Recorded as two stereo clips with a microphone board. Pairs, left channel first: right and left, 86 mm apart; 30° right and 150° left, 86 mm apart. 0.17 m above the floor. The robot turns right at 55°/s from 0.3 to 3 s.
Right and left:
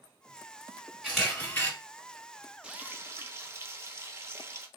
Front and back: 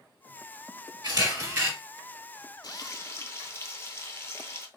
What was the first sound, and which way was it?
A camera shutter, 175° left.